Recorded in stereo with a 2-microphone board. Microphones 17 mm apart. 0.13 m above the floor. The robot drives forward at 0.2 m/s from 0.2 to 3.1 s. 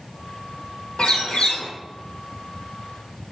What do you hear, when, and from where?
1.0 s a bird: 75° left (ahead or behind), 1.6 m